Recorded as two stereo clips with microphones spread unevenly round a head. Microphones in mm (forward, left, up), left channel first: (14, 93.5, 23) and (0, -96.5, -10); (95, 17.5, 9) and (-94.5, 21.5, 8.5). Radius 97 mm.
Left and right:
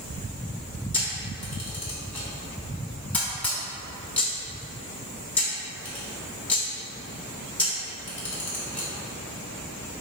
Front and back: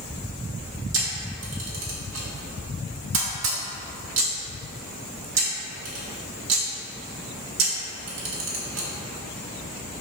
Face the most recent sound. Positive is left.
turn(degrees=165)